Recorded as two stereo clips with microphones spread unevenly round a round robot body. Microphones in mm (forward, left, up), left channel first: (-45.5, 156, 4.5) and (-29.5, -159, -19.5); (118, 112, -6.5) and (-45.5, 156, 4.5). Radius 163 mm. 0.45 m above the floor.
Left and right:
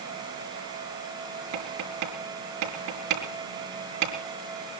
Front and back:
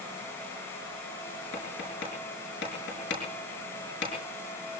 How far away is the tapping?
About 5.5 m.